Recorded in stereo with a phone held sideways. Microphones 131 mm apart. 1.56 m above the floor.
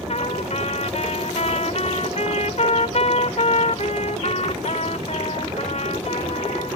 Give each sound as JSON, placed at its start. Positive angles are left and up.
{"t": 0.1, "sound": "a trumpet", "side_deg": 60}